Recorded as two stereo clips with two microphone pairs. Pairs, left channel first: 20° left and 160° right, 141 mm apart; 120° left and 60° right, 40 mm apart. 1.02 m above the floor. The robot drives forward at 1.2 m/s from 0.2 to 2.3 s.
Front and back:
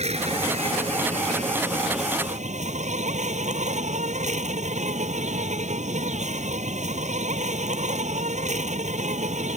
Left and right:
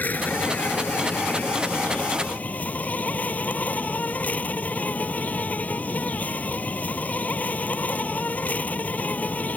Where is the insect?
160° left; by 9.6 s 170° left.